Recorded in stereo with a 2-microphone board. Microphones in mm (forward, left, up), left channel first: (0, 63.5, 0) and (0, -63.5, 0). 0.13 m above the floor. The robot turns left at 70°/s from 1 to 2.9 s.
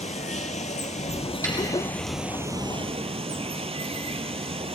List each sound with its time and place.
0.0 s running water: 75° left, 0.7 m; by 4.8 s 55° right, 0.7 m
1.4 s a snare drum: 20° left (ahead or behind), 4.5 m; by 1.6 s 30° left (ahead or behind), 4.5 m